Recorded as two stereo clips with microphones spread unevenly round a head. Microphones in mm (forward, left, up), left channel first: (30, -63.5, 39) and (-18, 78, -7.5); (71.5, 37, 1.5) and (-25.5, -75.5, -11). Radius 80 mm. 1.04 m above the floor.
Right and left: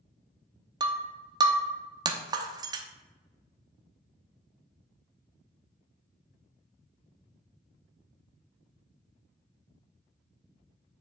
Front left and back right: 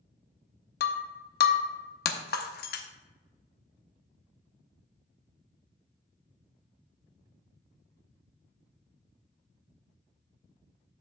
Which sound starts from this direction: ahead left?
Breaking glass, at 0.8 s.